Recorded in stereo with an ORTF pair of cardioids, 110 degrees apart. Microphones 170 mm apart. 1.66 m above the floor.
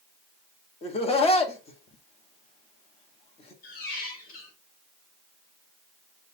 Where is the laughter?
35° left, 1.5 m.